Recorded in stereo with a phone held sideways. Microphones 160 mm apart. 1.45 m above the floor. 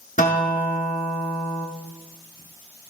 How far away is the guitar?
About 1.2 m.